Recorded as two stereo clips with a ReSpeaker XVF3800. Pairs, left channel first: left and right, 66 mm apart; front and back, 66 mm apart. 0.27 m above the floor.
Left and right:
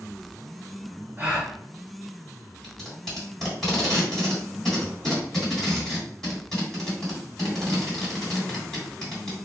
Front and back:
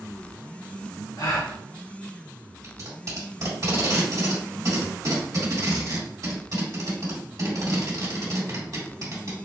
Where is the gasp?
25° right, 1.2 m.